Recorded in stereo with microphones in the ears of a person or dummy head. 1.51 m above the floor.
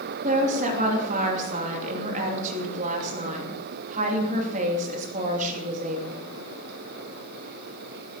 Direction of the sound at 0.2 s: 45° right (ahead or behind).